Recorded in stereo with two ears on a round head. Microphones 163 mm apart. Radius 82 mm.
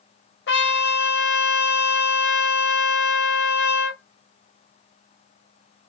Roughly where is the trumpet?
Left.